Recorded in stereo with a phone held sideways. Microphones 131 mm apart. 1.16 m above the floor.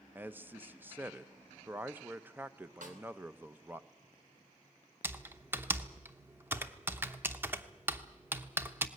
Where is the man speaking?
15° right (ahead or behind), 0.7 m.